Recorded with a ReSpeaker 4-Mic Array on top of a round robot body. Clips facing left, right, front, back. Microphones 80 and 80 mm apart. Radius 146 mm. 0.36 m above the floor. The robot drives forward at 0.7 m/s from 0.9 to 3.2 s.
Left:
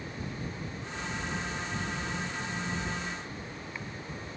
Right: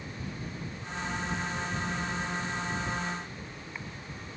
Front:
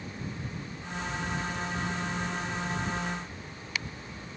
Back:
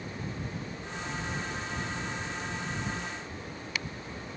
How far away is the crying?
No crying in this recording.